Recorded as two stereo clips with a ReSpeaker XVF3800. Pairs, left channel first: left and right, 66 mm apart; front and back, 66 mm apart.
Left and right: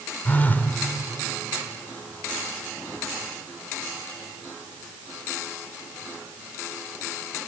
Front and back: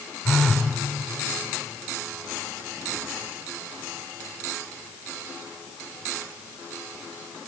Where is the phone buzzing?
70° left, 1.2 m.